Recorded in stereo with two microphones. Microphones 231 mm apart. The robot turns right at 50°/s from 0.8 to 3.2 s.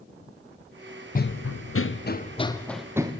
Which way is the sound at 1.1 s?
35° left (ahead or behind).